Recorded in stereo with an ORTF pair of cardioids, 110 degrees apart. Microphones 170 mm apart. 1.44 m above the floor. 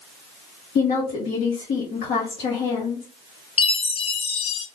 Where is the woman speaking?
65° left, 1.0 m.